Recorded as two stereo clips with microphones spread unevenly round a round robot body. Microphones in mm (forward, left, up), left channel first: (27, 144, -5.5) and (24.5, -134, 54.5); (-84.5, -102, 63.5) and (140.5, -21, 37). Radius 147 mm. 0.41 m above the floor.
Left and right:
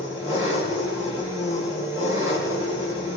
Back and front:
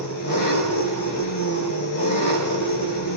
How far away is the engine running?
About 4.5 m.